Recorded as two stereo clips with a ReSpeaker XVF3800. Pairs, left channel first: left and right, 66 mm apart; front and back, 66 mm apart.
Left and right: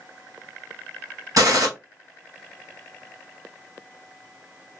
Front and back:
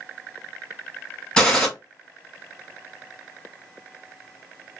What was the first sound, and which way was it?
A gunshot, 80° right.